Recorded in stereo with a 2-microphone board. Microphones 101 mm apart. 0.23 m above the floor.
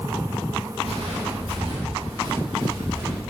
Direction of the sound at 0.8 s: 75° right (ahead or behind).